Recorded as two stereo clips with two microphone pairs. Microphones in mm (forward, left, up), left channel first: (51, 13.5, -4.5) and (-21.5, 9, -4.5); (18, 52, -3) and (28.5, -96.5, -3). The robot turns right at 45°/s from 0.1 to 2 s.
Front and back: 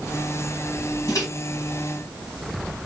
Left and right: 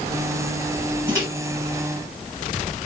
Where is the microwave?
25° right, 1.7 m; by 1.3 s 15° right, 1.7 m.